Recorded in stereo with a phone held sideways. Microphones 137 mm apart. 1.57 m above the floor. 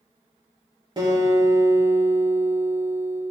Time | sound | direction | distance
1.0 | a guitar | 35° right (ahead or behind) | 3.5 m